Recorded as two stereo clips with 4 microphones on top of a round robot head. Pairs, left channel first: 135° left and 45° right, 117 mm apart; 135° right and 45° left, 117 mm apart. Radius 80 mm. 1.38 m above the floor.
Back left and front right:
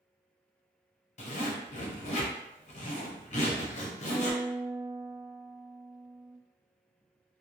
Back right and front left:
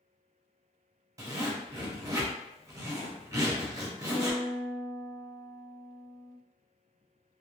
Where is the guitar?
15° right, 1.4 m.